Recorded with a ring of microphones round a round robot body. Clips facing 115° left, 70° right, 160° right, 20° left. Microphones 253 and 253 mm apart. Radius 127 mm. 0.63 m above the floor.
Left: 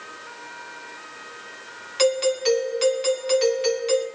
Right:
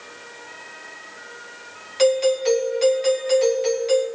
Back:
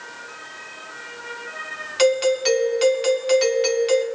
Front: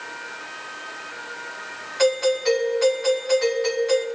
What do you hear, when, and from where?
2.0 s a doorbell: 175° left, 2 m